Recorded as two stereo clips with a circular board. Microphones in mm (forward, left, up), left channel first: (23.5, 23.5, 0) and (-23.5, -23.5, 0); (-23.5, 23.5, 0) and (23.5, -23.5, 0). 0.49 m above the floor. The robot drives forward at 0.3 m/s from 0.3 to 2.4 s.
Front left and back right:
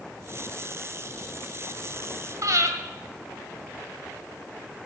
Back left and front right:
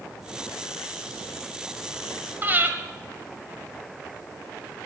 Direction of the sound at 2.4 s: 105° right.